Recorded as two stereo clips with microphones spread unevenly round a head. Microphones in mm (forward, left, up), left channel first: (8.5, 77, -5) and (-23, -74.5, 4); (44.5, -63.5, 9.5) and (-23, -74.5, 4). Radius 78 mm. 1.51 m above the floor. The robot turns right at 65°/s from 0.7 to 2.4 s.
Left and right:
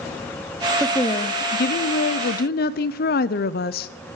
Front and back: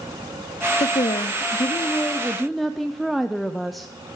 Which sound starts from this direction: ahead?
A woman speaking, at 0.8 s.